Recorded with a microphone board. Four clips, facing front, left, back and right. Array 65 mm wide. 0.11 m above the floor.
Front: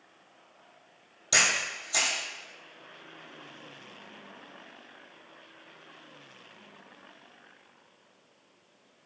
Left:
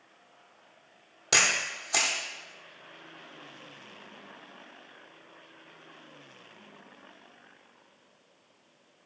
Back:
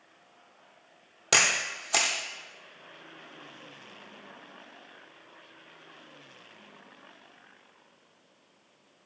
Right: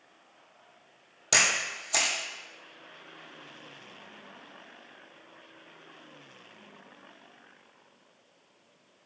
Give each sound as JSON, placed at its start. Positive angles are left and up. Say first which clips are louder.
{"t": 1.3, "sound": "a camera shutter", "louder": "even, back 1 dB", "azimuth_deg": 175, "distance_m": 0.9}